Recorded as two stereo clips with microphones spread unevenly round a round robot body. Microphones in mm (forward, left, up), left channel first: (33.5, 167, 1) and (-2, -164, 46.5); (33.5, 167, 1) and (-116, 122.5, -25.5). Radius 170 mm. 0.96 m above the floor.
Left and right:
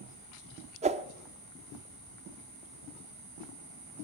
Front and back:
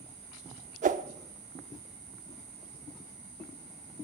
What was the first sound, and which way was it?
A whoosh, 145° right.